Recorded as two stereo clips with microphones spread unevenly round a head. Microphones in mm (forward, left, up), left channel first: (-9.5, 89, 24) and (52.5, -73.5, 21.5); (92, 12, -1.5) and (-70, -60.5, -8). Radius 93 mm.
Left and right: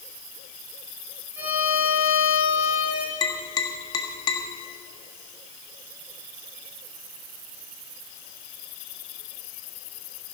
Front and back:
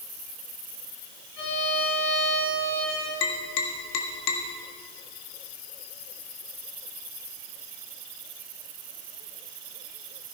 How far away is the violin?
About 5.5 m.